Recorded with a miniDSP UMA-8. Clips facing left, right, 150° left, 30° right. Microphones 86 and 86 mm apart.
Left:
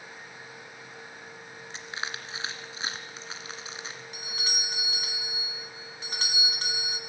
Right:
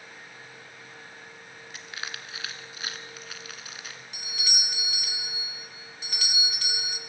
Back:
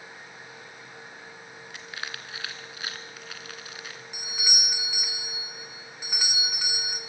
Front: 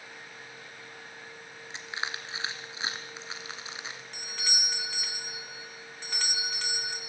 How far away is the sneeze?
No sneeze in this recording.